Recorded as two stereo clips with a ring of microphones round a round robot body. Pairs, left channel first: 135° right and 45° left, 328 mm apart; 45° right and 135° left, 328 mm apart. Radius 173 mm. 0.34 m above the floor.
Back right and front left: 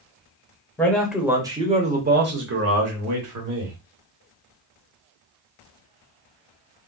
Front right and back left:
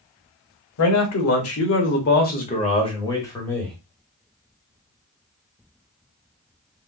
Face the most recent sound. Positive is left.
turn(degrees=40)